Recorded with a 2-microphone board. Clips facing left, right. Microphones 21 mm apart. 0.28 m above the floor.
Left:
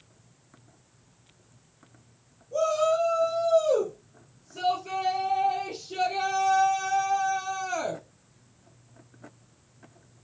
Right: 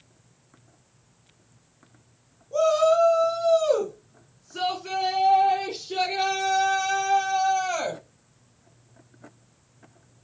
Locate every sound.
2.5 s a shout: 25° right (ahead or behind), 2 m; by 8.0 s 75° right (ahead or behind), 4.5 m